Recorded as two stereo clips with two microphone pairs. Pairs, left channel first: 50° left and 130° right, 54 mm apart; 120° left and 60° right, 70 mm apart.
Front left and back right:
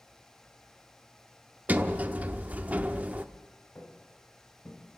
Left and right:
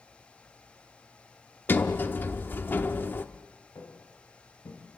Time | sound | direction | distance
1.7 | a sliding door | 175° left | 0.9 m
3.8 | footsteps | 100° left | 5 m